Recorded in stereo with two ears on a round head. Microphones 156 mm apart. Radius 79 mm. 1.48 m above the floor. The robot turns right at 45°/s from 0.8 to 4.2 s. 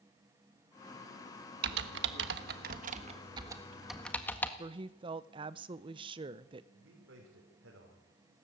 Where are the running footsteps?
No running footsteps in this recording.